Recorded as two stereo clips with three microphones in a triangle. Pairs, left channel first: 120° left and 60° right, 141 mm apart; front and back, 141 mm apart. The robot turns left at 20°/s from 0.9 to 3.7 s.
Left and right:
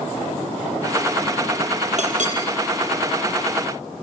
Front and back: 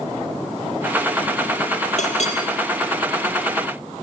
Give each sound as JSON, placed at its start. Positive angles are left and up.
{"t": 2.0, "sound": "a clink", "azimuth_deg": -30, "distance_m": 5.0}